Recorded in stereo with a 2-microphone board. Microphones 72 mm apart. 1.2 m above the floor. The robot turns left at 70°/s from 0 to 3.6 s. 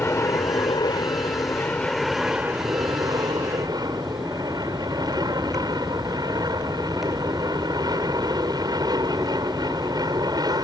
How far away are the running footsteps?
I don't hear running footsteps.